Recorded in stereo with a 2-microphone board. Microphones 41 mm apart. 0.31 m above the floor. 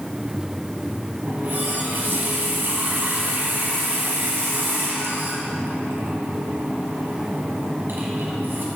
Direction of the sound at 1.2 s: 55° right (ahead or behind).